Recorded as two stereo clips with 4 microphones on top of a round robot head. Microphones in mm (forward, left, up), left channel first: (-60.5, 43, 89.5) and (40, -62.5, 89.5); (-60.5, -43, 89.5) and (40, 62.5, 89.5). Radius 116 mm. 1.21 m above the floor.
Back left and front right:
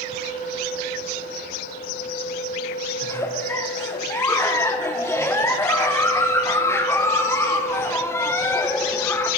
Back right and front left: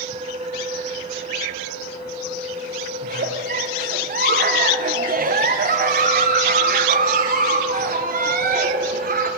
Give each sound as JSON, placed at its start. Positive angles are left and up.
{"t": 3.0, "sound": "a giggle", "azimuth_deg": 60, "distance_m": 1.2}